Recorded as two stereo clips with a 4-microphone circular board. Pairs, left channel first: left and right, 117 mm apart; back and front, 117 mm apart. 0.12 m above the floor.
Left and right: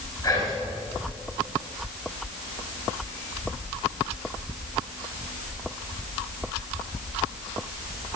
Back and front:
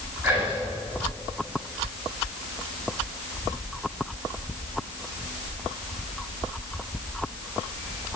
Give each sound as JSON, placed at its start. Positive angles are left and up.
{"t": 0.2, "sound": "whispering", "azimuth_deg": 70, "distance_m": 2.0}